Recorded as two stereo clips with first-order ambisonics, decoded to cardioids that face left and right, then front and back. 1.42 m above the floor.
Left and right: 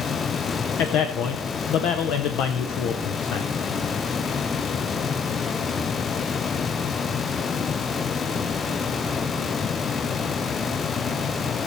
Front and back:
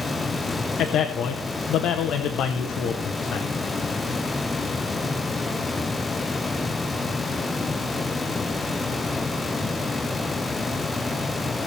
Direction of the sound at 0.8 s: 50° left.